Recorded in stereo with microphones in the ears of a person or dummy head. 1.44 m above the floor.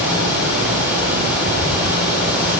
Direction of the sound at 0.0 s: 10° right (ahead or behind).